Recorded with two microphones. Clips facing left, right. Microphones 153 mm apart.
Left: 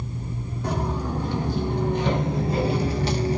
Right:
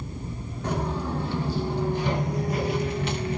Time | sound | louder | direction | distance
0.6 | footsteps | left 1 dB | 10° left (ahead or behind) | 1.4 m